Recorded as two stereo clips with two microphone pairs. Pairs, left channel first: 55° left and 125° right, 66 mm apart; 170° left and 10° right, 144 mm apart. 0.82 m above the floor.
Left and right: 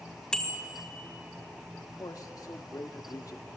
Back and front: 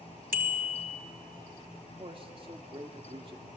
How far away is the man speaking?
About 1.6 m.